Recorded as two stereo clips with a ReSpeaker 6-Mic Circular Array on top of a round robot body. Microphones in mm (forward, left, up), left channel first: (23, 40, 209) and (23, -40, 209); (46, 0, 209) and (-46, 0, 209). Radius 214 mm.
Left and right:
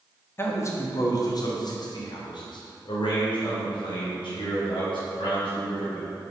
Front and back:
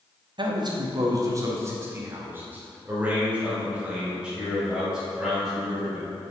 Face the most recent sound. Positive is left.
turn(degrees=95)